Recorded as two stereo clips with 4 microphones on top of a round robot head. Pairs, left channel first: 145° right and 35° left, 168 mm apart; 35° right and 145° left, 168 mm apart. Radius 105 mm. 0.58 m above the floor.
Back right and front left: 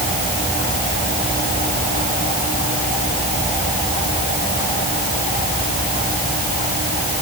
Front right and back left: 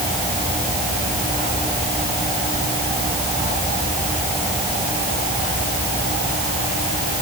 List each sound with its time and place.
Only background noise.